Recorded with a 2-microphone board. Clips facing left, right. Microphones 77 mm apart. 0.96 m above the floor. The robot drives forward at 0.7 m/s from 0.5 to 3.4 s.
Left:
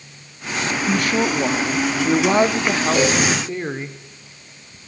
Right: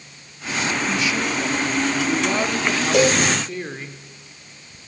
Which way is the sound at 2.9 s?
65° right (ahead or behind).